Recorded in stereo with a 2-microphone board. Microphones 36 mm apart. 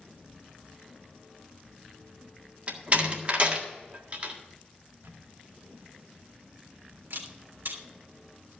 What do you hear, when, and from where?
2.7 s a door slam: 40° right (ahead or behind), 1.7 m
5.0 s a camera shutter: 80° right, 2 m